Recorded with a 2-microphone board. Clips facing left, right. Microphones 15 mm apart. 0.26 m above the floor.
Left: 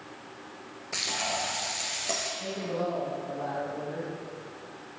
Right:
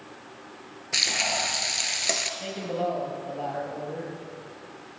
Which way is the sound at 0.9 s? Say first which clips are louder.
Right 6 dB; 45° right (ahead or behind).